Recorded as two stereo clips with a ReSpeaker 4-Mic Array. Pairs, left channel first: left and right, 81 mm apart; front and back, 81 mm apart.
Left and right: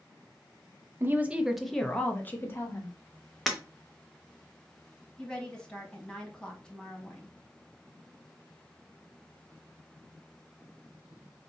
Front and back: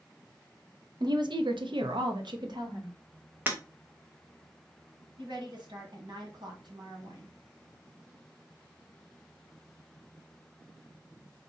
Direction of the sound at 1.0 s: 150° right.